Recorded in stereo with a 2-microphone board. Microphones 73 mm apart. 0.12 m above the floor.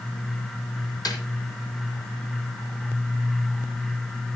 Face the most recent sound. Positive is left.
turn(degrees=55)  # may be behind; listen again after turning